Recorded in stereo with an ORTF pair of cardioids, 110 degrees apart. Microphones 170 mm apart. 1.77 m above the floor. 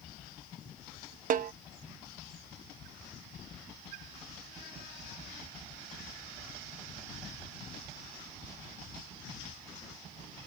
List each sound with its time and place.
1.3 s a snare drum: 50° right